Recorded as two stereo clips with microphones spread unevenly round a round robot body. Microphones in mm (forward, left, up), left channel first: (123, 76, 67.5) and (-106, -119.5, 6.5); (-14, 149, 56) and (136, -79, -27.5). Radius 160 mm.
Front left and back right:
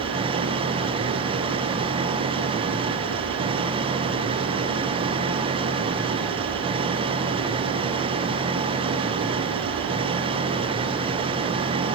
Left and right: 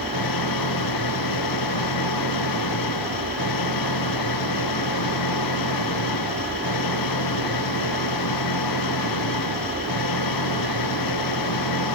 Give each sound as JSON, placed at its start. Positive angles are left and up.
{"t": 0.0, "sound": "an engine running", "azimuth_deg": 145}